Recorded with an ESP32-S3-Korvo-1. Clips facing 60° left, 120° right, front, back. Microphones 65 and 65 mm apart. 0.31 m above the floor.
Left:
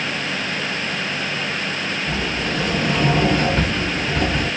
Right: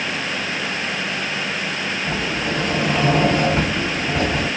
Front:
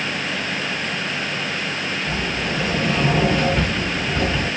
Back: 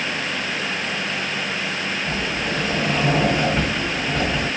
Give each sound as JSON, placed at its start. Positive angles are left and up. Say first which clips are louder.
{"t": 2.1, "sound": "a sliding door", "louder": "right 1 dB, even", "azimuth_deg": -125, "distance_m": 1.7}